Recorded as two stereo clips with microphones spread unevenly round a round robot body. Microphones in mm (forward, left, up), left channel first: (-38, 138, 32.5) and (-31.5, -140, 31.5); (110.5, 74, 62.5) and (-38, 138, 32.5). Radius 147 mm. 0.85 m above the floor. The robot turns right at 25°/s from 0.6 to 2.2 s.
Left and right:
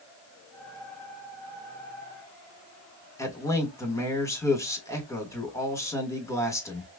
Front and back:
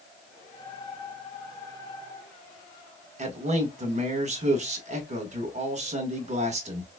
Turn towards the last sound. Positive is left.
turn(degrees=170)